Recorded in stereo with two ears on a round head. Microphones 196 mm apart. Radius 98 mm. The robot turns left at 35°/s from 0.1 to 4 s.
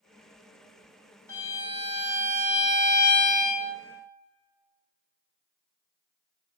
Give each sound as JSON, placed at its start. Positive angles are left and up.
{"t": 1.3, "sound": "a violin", "azimuth_deg": 165, "distance_m": 0.7}